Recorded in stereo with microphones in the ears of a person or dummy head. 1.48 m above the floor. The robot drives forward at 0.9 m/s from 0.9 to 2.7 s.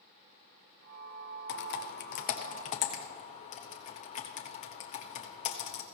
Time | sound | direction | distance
1.5 | typing on a keyboard | 65° left (ahead or behind) | 0.9 m